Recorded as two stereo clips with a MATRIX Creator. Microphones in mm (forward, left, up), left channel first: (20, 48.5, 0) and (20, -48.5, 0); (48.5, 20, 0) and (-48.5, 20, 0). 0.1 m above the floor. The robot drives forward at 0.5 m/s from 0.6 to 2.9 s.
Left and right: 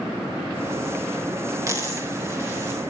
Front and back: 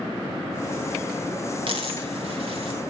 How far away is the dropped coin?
About 3 m.